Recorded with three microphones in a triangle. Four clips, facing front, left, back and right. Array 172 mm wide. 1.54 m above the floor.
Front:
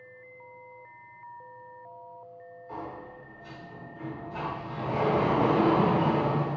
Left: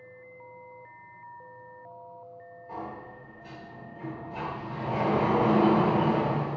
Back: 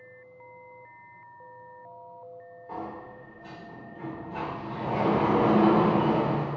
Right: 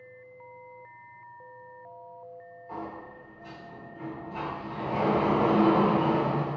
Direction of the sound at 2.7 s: Straight behind.